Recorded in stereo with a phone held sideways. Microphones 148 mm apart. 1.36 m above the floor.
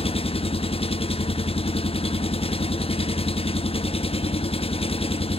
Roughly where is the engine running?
Left.